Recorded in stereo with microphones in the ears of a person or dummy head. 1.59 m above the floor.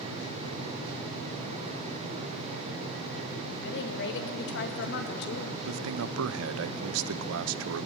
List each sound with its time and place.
3.6 s a woman speaking: 60° left (ahead or behind), 1.7 m
5.6 s a man speaking: 70° right (ahead or behind), 0.6 m